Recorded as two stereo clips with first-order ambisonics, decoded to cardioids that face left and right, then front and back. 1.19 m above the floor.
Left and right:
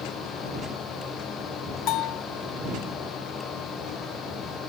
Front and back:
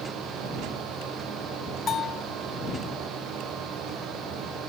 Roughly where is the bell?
Ahead left.